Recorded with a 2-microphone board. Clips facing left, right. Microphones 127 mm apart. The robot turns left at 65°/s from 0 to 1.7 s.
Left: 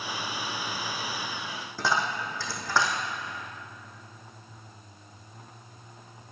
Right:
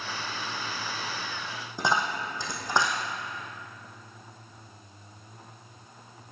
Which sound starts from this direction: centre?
A dropped coin, at 1.8 s.